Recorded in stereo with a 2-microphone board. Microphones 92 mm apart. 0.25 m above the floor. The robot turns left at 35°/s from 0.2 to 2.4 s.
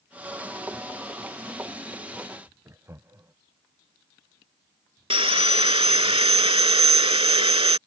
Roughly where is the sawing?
Right.